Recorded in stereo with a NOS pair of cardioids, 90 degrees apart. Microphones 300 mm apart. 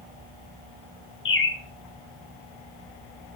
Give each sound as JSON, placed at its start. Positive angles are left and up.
{"t": 1.2, "sound": "a bird", "azimuth_deg": 45, "distance_m": 2.0}